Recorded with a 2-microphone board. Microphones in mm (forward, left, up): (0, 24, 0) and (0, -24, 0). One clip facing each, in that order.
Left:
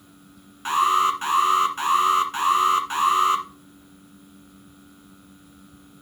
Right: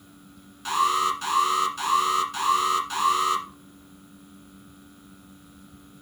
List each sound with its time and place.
0.7 s an alarm: 30° left (ahead or behind), 1.5 m